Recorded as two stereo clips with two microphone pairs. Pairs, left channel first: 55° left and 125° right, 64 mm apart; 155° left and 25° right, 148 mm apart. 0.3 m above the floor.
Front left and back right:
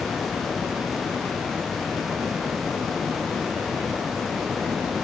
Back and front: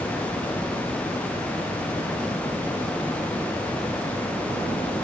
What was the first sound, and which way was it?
Only background noise.